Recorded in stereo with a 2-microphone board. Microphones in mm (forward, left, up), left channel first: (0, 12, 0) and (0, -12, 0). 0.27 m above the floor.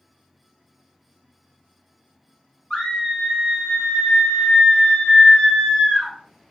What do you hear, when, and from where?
2.7 s a scream: 35° left (ahead or behind), 1.7 m